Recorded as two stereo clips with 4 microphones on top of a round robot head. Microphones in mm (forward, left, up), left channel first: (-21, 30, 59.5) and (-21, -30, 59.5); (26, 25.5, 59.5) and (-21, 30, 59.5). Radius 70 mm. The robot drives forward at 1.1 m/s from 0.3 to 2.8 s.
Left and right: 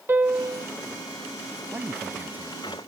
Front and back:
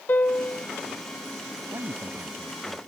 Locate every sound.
0.1 s a piano: 40° right; by 0.7 s 55° right
1.7 s a man speaking: 145° right; by 2.8 s 155° right